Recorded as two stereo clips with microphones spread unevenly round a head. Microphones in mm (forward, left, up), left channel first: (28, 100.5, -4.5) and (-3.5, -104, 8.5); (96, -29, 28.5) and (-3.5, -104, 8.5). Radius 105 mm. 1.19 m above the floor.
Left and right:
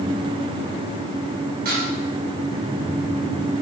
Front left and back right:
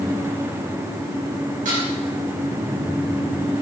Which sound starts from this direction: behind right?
Dishes clattering, at 1.6 s.